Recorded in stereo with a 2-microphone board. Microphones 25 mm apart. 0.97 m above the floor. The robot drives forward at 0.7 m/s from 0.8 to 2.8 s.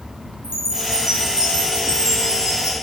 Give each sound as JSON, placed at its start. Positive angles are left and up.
{"t": 0.4, "sound": "a chime", "side_deg": -25, "distance_m": 3.0}